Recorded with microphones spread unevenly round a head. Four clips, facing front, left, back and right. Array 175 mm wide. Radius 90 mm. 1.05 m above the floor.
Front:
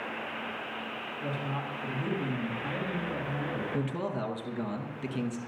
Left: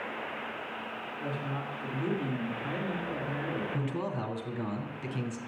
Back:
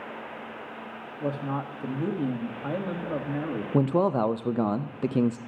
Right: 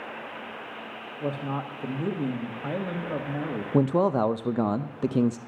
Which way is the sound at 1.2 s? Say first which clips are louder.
Right 7 dB, back 6 dB; 130° right.